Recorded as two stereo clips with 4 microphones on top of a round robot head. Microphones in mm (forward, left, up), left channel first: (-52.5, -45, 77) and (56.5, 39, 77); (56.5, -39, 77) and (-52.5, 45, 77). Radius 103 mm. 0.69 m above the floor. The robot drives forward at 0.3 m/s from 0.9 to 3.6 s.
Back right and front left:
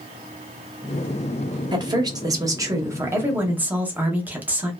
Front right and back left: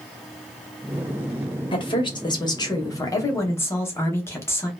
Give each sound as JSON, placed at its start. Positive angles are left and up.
{"t": 1.7, "sound": "a woman speaking", "azimuth_deg": -5, "distance_m": 1.3}